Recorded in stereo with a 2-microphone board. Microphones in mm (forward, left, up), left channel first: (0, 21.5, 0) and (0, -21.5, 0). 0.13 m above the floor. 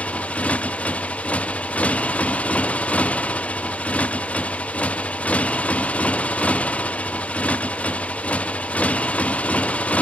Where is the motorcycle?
30° left (ahead or behind).